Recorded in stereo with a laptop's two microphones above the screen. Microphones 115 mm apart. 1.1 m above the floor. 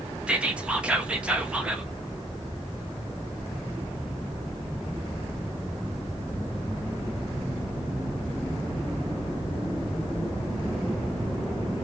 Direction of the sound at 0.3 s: 10° right (ahead or behind).